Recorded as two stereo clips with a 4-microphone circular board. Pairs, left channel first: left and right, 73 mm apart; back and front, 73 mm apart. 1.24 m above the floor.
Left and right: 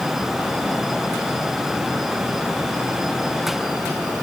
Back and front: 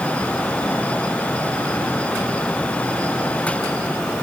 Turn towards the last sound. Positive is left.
No sound to turn to.